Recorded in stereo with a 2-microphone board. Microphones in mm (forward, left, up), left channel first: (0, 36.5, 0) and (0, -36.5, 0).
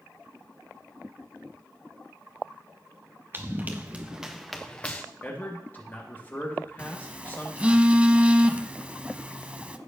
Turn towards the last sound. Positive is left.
turn(degrees=-15)  # may be behind; listen again after turning